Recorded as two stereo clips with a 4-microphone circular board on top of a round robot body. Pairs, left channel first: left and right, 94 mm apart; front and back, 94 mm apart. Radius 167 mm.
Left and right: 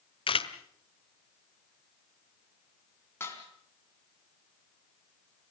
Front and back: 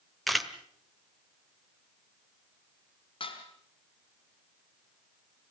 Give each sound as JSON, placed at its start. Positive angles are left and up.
{"t": 0.3, "sound": "a camera shutter", "azimuth_deg": 90, "distance_m": 1.7}
{"t": 3.2, "sound": "dishes clattering", "azimuth_deg": 25, "distance_m": 3.5}